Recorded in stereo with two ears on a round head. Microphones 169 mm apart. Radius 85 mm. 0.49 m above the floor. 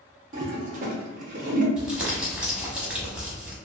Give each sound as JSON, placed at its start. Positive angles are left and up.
{"t": 0.3, "sound": "a toilet flushing", "side_deg": -45, "distance_m": 0.6}
{"t": 1.8, "sound": "crumpling", "side_deg": -5, "distance_m": 0.7}